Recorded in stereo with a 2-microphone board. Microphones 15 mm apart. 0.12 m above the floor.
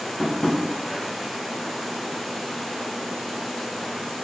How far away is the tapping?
About 6.5 m.